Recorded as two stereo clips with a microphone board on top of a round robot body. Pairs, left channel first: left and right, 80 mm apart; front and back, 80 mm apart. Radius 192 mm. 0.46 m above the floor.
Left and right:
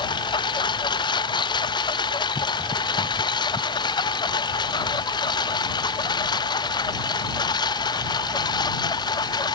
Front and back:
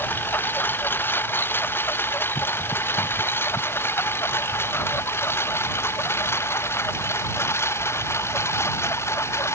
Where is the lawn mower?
65° left; by 9.6 s 55° left.